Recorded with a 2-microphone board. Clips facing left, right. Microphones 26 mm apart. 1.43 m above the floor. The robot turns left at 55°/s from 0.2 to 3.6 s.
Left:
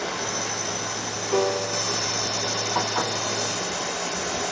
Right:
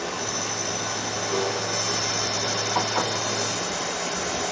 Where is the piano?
115° left, 0.5 m; by 2.0 s 80° left, 0.5 m.